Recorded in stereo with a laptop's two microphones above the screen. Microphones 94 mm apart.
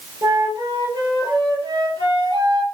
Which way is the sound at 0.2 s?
50° right (ahead or behind).